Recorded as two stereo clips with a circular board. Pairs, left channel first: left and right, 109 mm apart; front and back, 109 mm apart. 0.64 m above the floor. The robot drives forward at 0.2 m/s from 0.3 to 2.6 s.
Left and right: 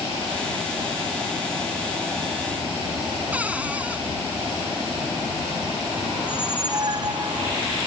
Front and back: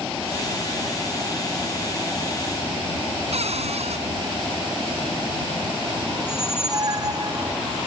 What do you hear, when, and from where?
3.3 s a cupboard door: 165° right
6.2 s a squeak: 135° right